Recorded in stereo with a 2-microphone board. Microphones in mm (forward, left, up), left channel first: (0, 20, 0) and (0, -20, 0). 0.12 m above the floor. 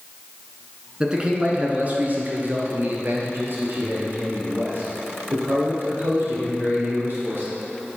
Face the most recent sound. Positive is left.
turn(degrees=-70)  # may be behind; listen again after turning